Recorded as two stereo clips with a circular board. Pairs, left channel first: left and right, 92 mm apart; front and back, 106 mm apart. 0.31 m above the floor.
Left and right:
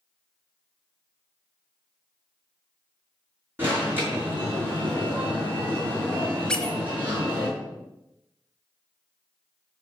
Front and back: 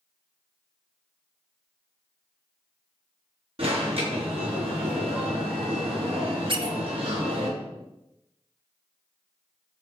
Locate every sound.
3.6 s an alarm: 155° right, 5.5 m
6.5 s a squeak: 170° left, 1.2 m